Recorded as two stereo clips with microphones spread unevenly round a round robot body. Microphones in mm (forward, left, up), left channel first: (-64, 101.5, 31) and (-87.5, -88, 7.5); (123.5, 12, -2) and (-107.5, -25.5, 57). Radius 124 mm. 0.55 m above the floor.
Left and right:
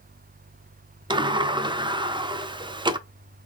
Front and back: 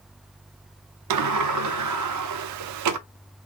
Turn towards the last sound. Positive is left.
turn(degrees=-160)